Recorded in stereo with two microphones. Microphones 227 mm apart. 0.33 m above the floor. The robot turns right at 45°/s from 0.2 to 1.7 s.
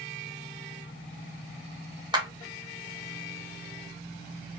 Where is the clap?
20° right (ahead or behind), 0.7 m.